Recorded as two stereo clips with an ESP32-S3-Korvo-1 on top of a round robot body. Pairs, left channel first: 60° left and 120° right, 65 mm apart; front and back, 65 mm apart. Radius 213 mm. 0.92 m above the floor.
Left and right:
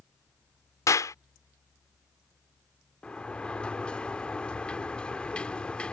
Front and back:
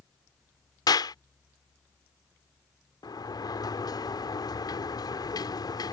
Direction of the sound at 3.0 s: 15° right.